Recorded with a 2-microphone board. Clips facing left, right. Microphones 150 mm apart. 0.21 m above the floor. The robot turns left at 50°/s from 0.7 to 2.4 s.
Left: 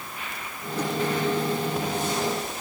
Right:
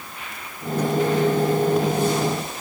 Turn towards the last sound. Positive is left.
No sound to turn to.